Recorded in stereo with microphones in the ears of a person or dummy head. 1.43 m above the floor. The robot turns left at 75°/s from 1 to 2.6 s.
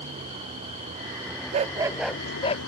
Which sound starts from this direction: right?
A vehicle, at 0.0 s.